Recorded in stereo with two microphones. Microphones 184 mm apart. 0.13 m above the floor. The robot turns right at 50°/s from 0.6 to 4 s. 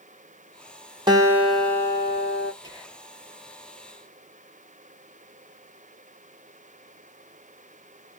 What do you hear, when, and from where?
1.1 s a guitar: 25° right, 0.8 m; by 2.5 s 50° left, 0.8 m
2.6 s whispering: 25° left (ahead or behind), 2.5 m; by 3.1 s 5° left (ahead or behind), 2.5 m